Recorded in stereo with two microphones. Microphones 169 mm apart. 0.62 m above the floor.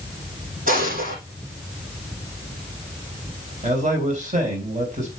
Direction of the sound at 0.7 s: 55° right (ahead or behind).